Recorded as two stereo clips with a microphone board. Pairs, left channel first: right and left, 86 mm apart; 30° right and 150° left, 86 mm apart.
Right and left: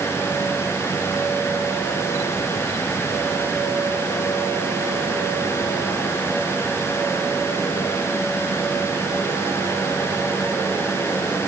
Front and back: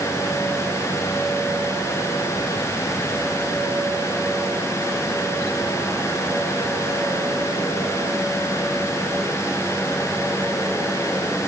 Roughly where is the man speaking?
I don't hear a man speaking.